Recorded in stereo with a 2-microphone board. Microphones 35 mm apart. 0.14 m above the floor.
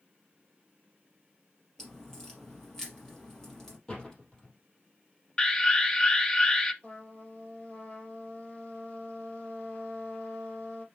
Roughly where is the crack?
Centre.